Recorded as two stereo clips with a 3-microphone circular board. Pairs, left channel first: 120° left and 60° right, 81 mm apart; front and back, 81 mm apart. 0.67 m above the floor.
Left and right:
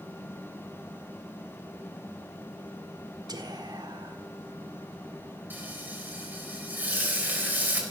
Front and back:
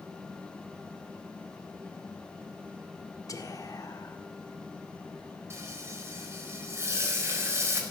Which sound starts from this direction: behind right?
Frying, at 5.5 s.